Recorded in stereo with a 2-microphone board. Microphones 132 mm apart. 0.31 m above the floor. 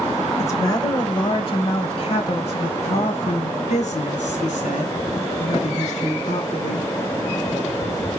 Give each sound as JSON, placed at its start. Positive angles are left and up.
{"t": 0.4, "sound": "a woman speaking", "side_deg": 25, "distance_m": 1.1}